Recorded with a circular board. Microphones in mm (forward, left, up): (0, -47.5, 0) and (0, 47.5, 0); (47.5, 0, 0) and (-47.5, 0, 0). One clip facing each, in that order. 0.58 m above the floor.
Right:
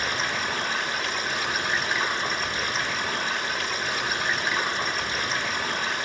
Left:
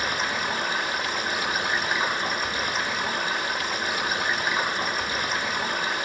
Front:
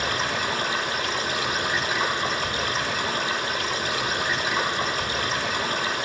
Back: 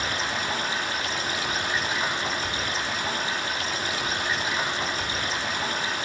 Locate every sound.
0.0 s running water: 5° left, 2.5 m